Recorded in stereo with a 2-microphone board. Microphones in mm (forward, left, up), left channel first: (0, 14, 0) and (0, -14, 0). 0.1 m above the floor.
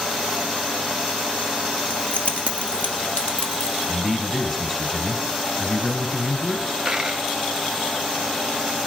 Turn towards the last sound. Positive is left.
turn(degrees=-15)  # may be behind; listen again after turning